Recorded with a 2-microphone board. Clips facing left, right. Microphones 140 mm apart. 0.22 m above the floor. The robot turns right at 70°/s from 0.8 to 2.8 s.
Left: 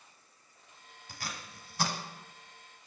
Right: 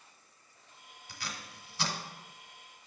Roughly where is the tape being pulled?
Left.